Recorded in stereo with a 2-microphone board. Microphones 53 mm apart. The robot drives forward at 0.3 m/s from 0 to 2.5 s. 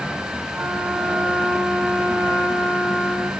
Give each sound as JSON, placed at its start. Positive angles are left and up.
{"t": 0.6, "sound": "a trumpet", "side_deg": -45, "distance_m": 2.0}